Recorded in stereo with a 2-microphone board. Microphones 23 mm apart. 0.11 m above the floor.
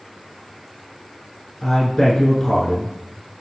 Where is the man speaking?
25° left (ahead or behind), 1.1 m.